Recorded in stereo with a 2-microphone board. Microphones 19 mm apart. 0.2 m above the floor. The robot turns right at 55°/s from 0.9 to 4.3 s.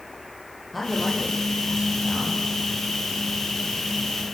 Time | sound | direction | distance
0.7 | a man speaking | straight behind | 8.5 m